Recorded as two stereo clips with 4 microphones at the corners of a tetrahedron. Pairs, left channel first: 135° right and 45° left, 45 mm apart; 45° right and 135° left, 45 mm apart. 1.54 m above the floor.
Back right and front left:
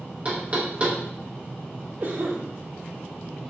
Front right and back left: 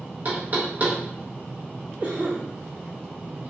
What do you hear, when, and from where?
0.2 s knocking: 95° left, 1.1 m
2.0 s a cough: 85° left, 2 m